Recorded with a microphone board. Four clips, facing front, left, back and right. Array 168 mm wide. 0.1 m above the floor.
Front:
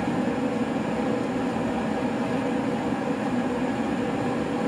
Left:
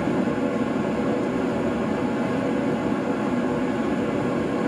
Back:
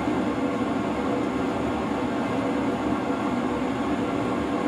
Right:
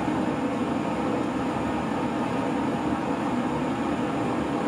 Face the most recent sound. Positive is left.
turn(degrees=100)